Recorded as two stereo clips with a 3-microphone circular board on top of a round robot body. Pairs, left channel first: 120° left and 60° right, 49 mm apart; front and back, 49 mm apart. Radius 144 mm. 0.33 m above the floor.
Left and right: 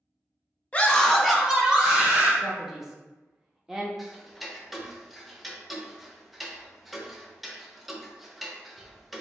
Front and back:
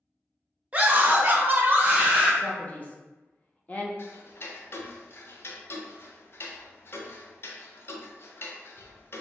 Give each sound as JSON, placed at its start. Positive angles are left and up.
{"t": 0.7, "sound": "a scream", "azimuth_deg": 155, "distance_m": 0.9}
{"t": 2.4, "sound": "a man speaking", "azimuth_deg": 15, "distance_m": 1.2}
{"t": 4.0, "sound": "ticking", "azimuth_deg": 30, "distance_m": 0.7}